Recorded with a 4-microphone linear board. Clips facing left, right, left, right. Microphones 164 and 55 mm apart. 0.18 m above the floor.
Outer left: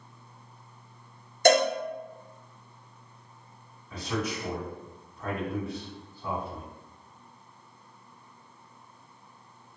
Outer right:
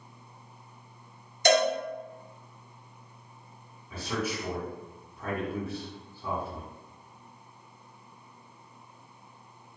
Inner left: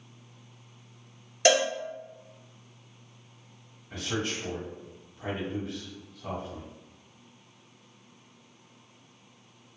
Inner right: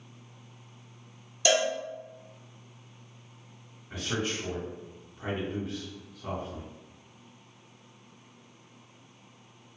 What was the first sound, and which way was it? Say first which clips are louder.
A cowbell: outer left 2 dB, inner left 3 dB; 50° left (ahead or behind).